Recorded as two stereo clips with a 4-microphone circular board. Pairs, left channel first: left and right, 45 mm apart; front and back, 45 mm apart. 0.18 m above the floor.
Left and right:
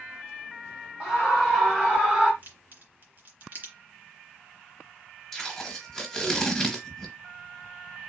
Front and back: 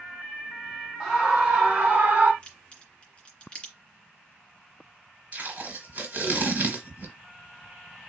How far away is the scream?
About 1.7 m.